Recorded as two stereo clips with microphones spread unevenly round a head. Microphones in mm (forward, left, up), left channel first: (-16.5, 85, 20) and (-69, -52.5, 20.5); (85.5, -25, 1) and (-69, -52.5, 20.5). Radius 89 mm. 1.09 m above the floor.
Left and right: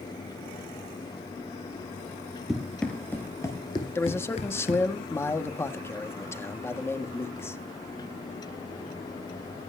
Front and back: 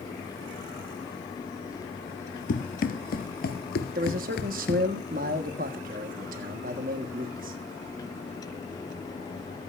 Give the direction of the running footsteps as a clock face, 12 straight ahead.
1 o'clock.